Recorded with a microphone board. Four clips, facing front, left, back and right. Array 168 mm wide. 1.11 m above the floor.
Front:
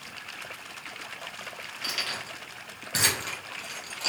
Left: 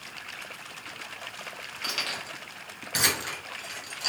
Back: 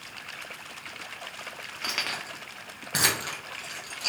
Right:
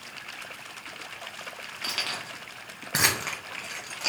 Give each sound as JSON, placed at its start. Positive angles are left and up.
{"t": 1.8, "sound": "keys jangling", "azimuth_deg": -160, "distance_m": 1.1}